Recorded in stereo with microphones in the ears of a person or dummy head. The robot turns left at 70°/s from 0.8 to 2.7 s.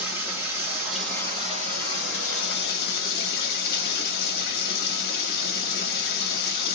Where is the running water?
170° right, 2 m; by 6.8 s 60° left, 2 m.